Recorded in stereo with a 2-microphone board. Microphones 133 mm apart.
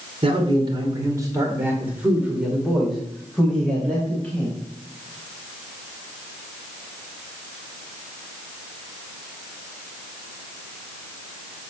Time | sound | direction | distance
0.2 | a man speaking | 40° right (ahead or behind) | 2 m